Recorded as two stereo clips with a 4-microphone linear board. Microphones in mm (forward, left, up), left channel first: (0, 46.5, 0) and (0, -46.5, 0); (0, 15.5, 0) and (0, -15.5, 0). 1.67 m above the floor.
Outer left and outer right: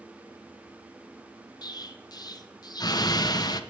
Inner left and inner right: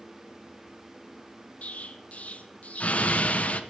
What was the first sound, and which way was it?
An explosion, 45° left (ahead or behind).